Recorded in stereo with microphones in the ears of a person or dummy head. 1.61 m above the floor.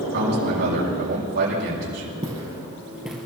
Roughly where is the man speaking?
Right.